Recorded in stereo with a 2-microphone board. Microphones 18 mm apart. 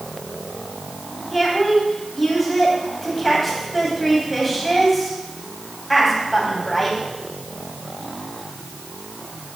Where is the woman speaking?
10° left (ahead or behind), 3.5 m.